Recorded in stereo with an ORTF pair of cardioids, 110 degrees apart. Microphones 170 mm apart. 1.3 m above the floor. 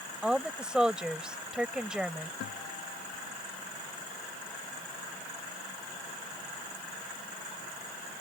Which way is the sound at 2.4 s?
70° left.